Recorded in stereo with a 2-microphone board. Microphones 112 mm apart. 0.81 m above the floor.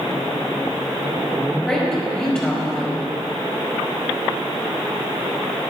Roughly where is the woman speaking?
Centre.